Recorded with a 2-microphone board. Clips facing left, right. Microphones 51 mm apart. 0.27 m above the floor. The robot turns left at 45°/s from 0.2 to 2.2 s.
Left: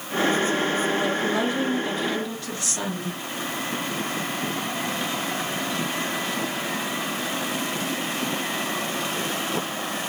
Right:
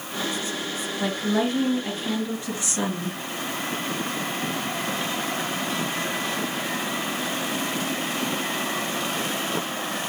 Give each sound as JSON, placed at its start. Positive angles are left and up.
{"t": 1.0, "sound": "a woman speaking", "azimuth_deg": -110, "distance_m": 3.5}